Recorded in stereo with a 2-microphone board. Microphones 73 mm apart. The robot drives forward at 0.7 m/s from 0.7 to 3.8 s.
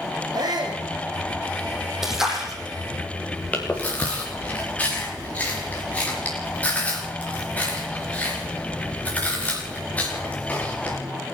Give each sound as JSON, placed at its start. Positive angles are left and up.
{"t": 0.3, "sound": "a shout", "side_deg": -60, "distance_m": 4.5}
{"t": 2.0, "sound": "a splash", "side_deg": -5, "distance_m": 7.0}
{"t": 3.5, "sound": "chewing", "side_deg": 20, "distance_m": 7.5}